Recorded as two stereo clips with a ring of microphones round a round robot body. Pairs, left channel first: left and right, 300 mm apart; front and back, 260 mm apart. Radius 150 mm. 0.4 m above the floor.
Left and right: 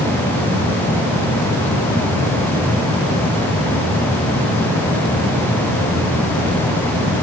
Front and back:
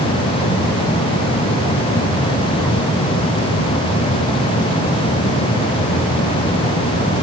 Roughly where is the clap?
I don't hear a clap.